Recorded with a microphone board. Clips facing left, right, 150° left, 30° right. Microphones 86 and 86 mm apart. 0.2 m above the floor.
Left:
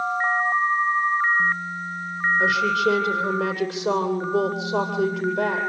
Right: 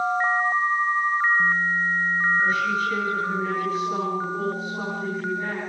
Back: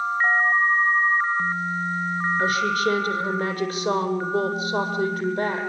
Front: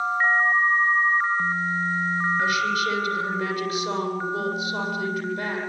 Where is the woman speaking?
100° left, 7.5 m.